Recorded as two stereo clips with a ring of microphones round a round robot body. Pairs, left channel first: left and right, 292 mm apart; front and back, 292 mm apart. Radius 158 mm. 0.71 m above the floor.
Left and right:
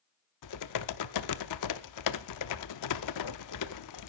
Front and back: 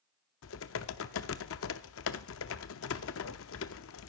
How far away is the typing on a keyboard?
About 0.6 m.